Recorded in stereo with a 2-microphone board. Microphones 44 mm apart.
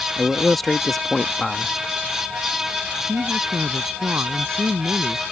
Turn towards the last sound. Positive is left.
turn(degrees=-80)